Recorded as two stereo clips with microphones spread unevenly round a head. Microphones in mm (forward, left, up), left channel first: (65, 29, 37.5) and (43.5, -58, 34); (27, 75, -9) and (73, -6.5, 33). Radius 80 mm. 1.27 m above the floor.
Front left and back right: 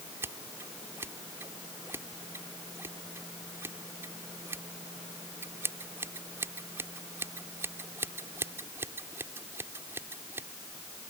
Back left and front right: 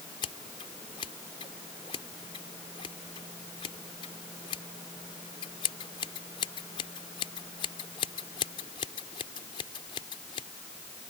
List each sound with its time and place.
0.2 s scissors: straight behind